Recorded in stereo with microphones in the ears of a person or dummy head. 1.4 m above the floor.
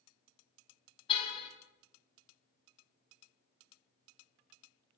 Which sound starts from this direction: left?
A car horn, at 1.1 s.